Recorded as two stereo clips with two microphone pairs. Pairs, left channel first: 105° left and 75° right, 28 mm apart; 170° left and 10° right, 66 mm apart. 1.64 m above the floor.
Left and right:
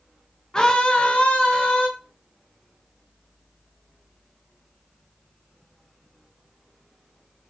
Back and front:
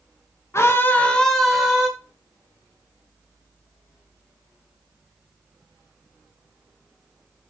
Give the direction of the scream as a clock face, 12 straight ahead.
7 o'clock.